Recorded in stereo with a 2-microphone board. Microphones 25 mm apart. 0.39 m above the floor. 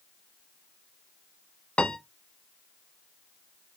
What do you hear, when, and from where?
1.8 s a piano: 50° left (ahead or behind), 0.6 m